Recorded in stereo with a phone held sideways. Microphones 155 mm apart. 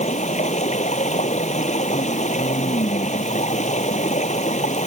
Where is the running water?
50° left (ahead or behind).